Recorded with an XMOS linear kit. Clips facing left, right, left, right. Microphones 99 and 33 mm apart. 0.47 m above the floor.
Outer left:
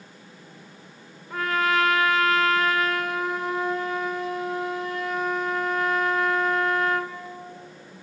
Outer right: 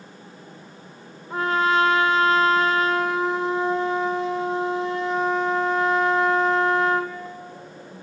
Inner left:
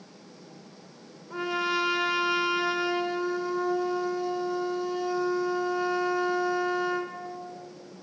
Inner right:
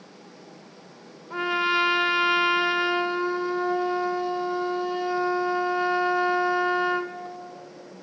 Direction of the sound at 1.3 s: 30° right (ahead or behind).